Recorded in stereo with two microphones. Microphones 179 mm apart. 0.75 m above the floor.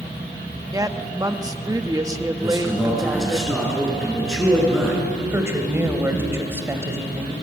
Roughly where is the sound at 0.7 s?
Centre.